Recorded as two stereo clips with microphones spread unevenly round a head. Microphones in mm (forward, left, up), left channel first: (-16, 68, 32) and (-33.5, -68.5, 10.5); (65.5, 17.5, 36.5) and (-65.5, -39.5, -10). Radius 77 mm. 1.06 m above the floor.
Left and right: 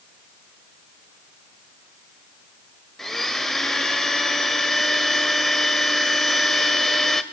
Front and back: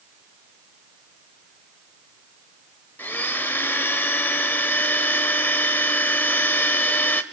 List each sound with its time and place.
3.0 s a blender: 15° left, 0.9 m